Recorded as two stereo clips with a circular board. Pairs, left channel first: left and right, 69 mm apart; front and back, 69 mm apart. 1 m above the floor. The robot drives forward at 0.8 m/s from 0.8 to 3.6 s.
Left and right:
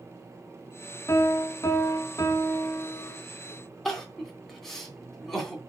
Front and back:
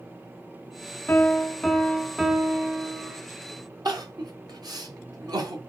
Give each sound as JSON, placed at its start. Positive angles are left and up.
{"t": 1.1, "sound": "a piano", "azimuth_deg": 55, "distance_m": 1.6}
{"t": 3.9, "sound": "crying", "azimuth_deg": 175, "distance_m": 3.0}